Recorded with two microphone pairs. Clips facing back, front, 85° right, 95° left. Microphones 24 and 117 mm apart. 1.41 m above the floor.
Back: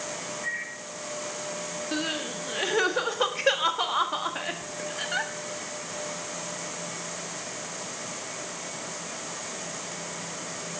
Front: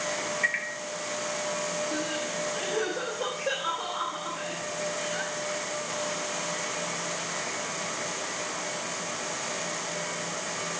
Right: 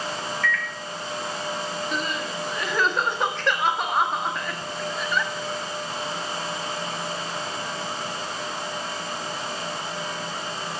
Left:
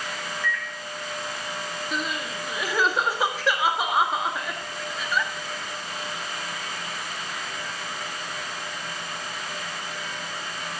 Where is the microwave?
25° left, 1.6 m.